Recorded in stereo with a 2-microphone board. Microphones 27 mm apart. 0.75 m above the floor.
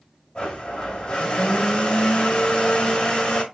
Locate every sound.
0.3 s a blender: 35° left (ahead or behind), 1.8 m